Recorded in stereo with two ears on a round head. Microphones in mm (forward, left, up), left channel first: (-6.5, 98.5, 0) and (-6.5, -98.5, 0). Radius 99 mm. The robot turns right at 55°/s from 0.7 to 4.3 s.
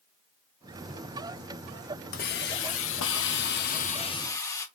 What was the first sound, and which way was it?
A hiss, 45° left.